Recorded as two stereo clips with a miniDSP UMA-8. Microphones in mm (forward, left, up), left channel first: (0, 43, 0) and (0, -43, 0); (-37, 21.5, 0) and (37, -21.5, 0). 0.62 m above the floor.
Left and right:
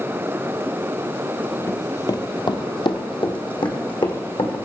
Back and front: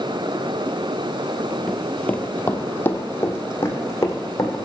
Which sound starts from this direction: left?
Running footsteps, at 1.7 s.